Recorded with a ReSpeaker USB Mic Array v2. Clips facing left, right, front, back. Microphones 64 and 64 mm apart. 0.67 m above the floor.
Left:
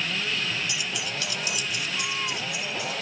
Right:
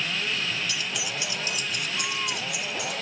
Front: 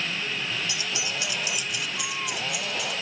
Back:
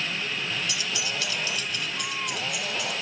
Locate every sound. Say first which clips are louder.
0.7 s keys jangling: even, even; 40° left, 0.6 m; by 2.9 s 90° right, 1.7 m